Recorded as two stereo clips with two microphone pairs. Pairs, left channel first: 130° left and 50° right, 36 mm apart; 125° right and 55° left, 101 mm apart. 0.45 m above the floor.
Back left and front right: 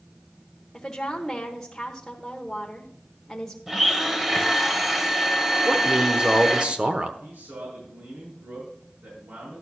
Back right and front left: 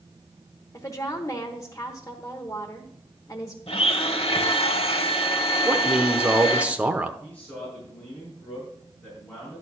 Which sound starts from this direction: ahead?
A man speaking, at 5.7 s.